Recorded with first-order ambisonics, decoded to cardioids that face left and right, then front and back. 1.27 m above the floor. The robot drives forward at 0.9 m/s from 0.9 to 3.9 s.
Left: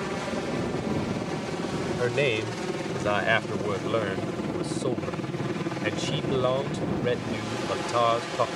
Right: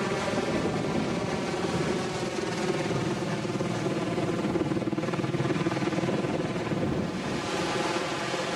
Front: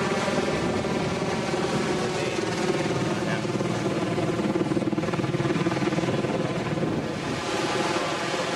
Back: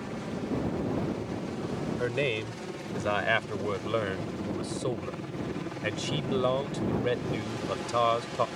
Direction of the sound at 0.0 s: 15° right.